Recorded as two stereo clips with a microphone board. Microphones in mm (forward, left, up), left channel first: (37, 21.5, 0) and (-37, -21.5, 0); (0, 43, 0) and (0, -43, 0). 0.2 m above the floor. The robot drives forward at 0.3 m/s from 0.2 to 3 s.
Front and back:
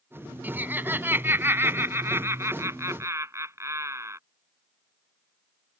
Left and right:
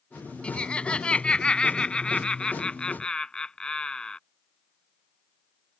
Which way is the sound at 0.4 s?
155° left.